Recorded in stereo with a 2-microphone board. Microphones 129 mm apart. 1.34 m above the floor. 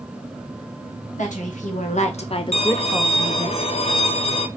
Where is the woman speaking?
75° left (ahead or behind), 1.4 m; by 3.5 s 40° right (ahead or behind), 0.8 m.